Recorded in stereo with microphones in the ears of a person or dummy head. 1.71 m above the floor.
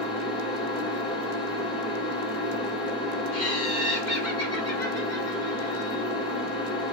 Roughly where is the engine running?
Left.